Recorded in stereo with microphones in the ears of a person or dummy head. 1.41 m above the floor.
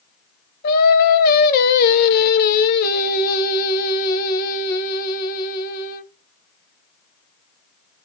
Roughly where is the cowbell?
I don't hear a cowbell.